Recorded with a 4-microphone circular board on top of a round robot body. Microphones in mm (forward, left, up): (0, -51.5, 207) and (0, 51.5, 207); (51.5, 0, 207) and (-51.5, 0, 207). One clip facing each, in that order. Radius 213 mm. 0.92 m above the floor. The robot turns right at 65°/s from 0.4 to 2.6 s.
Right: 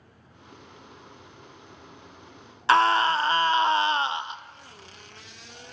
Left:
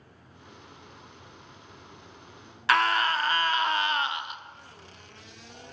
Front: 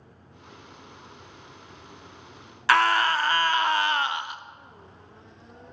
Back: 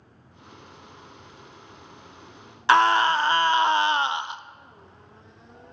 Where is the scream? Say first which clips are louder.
Right 4 dB, back 3 dB; 125° right, 0.6 m.